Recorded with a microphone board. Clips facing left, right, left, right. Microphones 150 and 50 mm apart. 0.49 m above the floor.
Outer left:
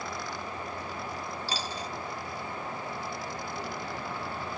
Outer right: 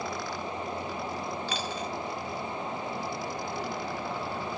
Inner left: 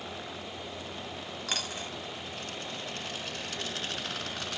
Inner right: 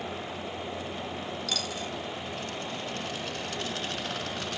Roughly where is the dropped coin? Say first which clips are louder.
Outer right 2 dB, inner left 1 dB; left.